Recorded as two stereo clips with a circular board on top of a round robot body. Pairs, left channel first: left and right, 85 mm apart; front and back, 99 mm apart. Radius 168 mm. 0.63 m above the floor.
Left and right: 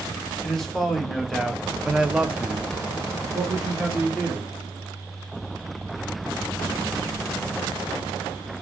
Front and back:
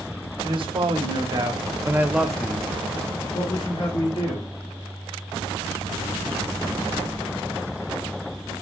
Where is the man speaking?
175° left, 1.3 m; by 4.5 s 15° right, 1.5 m.